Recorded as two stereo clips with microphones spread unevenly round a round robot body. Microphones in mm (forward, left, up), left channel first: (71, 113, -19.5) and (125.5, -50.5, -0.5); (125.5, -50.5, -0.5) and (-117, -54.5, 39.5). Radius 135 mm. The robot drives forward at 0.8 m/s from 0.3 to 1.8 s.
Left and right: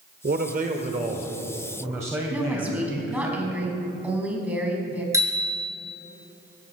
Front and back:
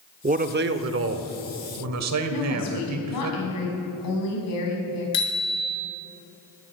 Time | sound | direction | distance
0.2 | a man speaking | 115° right | 1.0 m
2.3 | a woman speaking | 10° left | 4.5 m
5.1 | a bicycle bell | straight ahead | 5 m